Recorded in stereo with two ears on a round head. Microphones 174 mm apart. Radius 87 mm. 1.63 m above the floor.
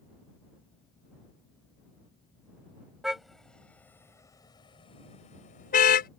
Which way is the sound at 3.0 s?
Centre (ahead or behind).